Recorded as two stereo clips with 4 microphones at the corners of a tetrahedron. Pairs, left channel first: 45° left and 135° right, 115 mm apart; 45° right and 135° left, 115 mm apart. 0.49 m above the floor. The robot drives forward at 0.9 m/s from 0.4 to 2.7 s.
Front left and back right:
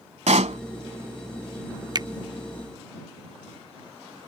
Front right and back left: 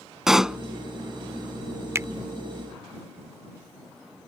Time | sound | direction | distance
0.3 | a pop | 140° right | ?
1.9 | a finger snap | 170° right | ?